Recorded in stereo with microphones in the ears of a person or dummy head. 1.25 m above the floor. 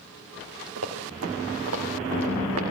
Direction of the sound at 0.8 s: 75° right (ahead or behind).